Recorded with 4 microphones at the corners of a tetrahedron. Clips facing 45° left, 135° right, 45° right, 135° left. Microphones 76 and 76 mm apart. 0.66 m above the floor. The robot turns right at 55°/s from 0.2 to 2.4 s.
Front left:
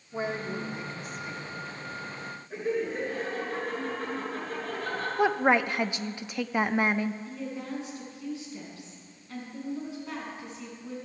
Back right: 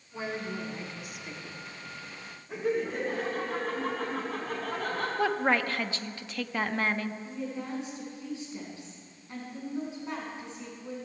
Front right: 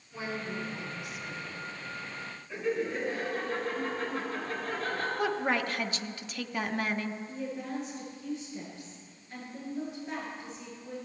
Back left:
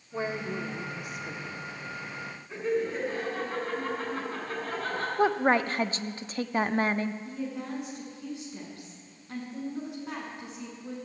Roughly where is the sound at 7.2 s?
Behind left.